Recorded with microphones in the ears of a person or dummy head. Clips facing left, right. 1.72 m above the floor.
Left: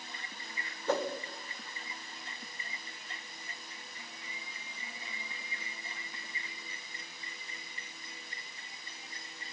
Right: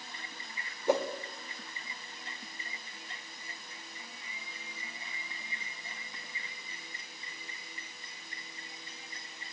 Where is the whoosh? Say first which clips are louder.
Right 3 dB; 20° right (ahead or behind), 0.7 m.